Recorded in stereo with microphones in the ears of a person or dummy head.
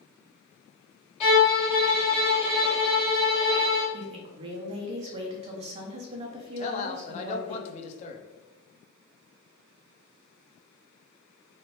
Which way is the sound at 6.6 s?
35° left (ahead or behind).